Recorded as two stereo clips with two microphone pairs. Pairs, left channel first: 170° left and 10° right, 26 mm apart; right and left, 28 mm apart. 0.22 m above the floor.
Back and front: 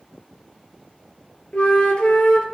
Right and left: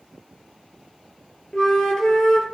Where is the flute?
150° right, 2.5 m.